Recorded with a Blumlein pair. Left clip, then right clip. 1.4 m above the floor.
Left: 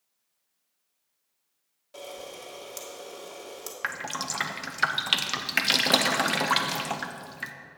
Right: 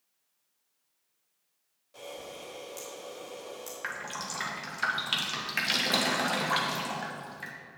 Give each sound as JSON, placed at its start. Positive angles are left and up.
{"t": 1.9, "sound": "a camera shutter", "azimuth_deg": 65, "distance_m": 1.9}
{"t": 3.8, "sound": "dripping", "azimuth_deg": 65, "distance_m": 0.7}